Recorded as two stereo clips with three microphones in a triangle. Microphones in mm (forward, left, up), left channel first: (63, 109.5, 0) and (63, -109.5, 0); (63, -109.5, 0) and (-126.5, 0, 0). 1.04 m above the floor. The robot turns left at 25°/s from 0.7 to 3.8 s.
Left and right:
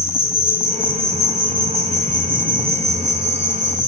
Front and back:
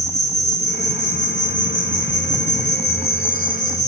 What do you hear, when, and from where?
0.0 s an insect: 5° right, 2.5 m; by 3.9 s 80° right, 2.5 m